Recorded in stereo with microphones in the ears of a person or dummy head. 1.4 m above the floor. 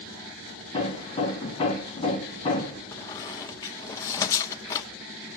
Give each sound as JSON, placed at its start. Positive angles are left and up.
{"t": 0.7, "sound": "hammering", "side_deg": 25, "distance_m": 2.5}
{"t": 2.9, "sound": "a squeak", "side_deg": 25, "distance_m": 1.0}